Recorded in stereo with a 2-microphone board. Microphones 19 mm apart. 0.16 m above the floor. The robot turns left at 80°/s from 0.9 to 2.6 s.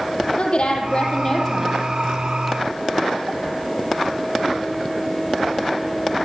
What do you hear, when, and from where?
0.4 s a woman speaking: 60° left, 5.5 m; by 1.8 s 10° right, 5.5 m